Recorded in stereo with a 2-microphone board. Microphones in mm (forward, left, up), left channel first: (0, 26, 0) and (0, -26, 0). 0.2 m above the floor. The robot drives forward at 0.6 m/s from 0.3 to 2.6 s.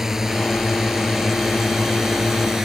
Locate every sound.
0.0 s a drone: 10° right (ahead or behind)